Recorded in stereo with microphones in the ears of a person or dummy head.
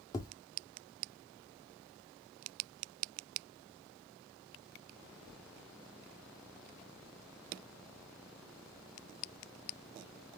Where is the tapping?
20° left (ahead or behind), 0.9 m.